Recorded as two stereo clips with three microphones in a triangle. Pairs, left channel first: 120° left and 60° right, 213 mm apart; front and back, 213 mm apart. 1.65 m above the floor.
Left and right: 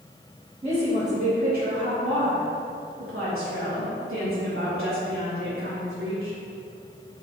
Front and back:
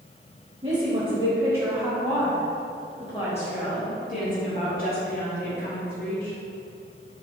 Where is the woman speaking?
120° right, 2 m; by 6.3 s 40° right, 4.5 m.